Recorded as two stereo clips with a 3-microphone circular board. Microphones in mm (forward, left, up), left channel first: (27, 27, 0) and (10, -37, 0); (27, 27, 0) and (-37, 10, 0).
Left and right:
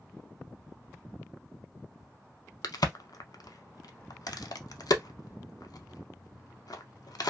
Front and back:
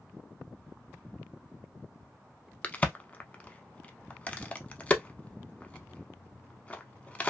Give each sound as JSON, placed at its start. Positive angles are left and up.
{"t": 2.6, "sound": "a crack", "azimuth_deg": 85, "distance_m": 0.5}